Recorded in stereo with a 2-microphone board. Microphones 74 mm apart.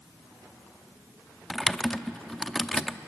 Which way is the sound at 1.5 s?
5° left (ahead or behind).